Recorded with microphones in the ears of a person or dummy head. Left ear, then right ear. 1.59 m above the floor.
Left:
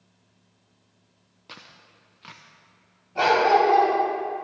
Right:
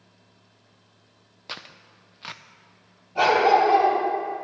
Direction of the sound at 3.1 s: 5° right (ahead or behind).